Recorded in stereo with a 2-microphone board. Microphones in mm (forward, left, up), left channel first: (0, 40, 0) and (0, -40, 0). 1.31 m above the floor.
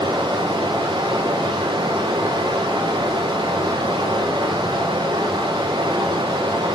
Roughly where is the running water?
Right.